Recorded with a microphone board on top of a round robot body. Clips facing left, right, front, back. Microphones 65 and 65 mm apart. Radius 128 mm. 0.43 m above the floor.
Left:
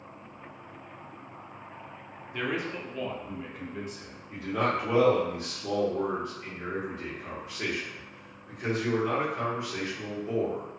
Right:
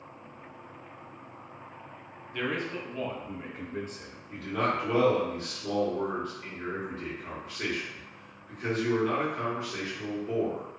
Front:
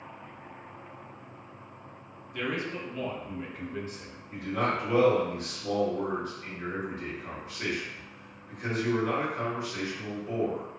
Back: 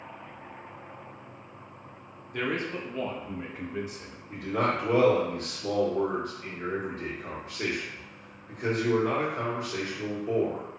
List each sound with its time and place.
2.3 s a man speaking: 160° left, 1.0 m; by 4.2 s 100° right, 1.0 m
4.3 s a man speaking: 170° left, 1.9 m